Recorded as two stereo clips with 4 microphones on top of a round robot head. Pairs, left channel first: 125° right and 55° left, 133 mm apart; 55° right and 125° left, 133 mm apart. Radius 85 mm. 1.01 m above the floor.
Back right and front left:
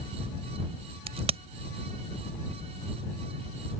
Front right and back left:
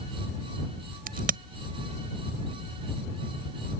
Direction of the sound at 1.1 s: 100° left.